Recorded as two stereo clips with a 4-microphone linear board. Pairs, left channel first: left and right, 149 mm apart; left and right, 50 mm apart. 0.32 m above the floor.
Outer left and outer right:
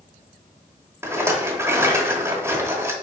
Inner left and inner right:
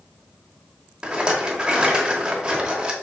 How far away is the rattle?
About 0.9 m.